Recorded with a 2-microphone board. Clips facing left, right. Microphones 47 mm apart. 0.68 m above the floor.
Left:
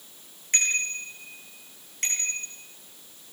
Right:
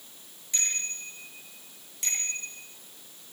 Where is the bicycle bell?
55° left (ahead or behind), 9 m; by 2.5 s 45° left (ahead or behind), 11.5 m.